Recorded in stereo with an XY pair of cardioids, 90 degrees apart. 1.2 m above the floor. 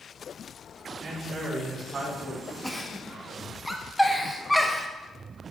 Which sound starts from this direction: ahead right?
A man speaking, at 1.0 s.